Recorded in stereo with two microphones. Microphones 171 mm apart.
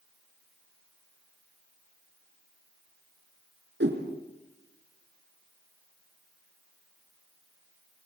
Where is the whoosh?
85° right, 3 m.